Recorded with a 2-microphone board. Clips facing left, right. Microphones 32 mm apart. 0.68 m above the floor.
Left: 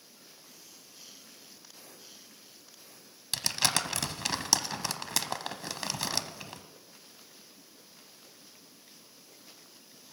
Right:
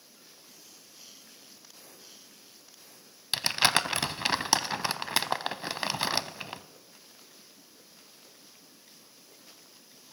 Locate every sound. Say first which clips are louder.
3.3 s crumpling: right 5 dB; 30° right (ahead or behind), 0.6 m